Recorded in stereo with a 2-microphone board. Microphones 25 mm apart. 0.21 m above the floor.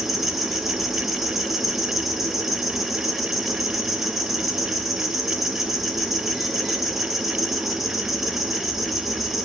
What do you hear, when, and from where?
0.0 s an insect: 15° right (ahead or behind), 0.7 m